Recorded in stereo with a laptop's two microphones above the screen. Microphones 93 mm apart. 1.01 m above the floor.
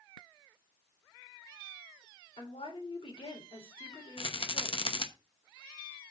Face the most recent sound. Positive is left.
turn(degrees=70)  # may be behind; listen again after turning